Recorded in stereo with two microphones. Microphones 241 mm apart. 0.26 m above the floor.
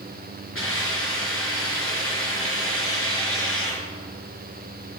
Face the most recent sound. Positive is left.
turn(degrees=60)  # may be behind; listen again after turning